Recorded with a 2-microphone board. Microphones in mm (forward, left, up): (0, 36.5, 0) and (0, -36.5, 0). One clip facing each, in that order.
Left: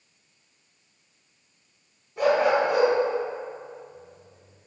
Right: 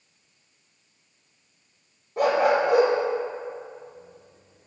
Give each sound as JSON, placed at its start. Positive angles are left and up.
{"t": 2.2, "sound": "a dog barking", "side_deg": -50, "distance_m": 1.9}